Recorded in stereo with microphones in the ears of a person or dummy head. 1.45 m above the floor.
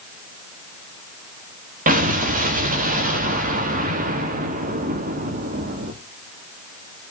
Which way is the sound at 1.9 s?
40° right (ahead or behind).